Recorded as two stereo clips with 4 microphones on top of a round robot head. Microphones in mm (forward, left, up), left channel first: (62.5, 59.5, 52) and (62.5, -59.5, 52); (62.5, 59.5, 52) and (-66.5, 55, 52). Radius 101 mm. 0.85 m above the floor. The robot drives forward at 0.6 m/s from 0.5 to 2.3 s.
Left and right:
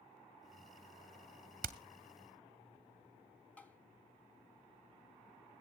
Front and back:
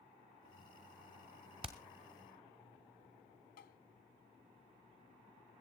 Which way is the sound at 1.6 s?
115° right.